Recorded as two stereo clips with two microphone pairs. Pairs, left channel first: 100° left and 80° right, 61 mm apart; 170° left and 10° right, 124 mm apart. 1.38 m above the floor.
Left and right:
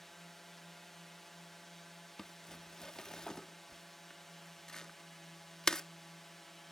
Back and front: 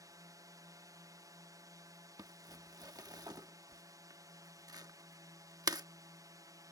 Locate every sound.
0.0 s a drone: 20° left
2.2 s crumpling: 30° left